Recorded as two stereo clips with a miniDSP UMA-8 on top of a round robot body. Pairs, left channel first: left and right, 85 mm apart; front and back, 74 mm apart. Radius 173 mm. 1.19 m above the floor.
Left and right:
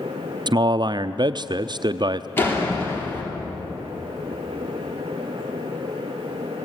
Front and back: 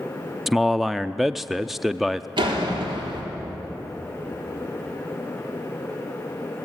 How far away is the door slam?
About 3 m.